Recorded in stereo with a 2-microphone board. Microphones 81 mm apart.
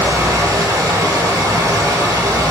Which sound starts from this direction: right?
Running water, at 0.0 s.